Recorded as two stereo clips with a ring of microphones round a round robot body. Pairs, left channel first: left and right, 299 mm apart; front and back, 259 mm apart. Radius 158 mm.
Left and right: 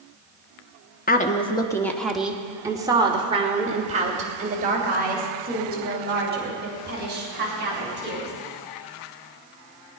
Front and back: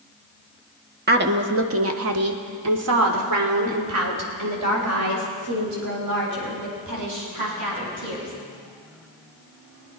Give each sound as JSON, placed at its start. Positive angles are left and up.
{"t": 1.1, "sound": "a woman speaking", "azimuth_deg": 140, "distance_m": 1.2}